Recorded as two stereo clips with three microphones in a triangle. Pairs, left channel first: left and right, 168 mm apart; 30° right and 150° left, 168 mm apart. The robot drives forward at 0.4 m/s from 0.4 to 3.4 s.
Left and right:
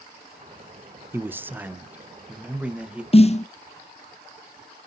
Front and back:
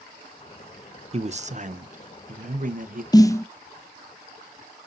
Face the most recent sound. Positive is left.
turn(degrees=40)